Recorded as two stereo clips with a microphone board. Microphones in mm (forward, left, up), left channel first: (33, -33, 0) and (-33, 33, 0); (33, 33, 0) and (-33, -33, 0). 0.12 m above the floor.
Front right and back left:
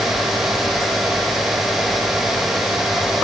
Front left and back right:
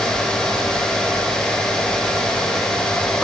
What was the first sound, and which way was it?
Only background noise.